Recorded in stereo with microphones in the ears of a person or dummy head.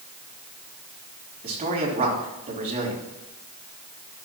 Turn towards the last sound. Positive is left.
turn(degrees=-45)  # may be behind; listen again after turning